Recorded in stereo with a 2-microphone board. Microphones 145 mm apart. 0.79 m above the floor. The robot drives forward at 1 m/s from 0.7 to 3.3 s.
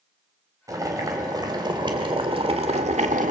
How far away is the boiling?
About 3.5 m.